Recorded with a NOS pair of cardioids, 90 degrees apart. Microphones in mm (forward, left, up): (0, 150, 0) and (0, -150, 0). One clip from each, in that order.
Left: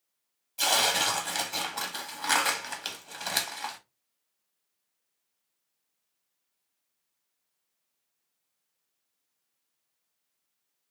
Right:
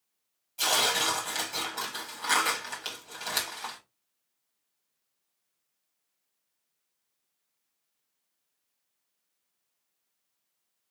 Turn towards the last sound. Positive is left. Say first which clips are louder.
# left 1 dB
turn(degrees=20)